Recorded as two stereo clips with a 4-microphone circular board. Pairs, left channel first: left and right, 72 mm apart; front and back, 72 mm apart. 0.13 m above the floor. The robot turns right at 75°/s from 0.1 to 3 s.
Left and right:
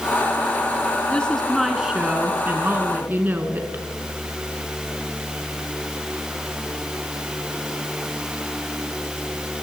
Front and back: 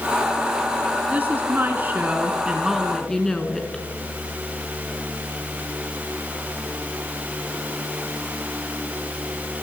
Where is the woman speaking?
140° left, 1.1 m; by 3.8 s 75° right, 1.1 m.